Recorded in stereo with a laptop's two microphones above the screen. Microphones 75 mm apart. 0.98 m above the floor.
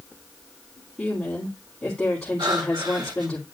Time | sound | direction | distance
1.0 | a woman speaking | 20° left (ahead or behind) | 3 m
2.4 | breathing | 75° right (ahead or behind) | 2.0 m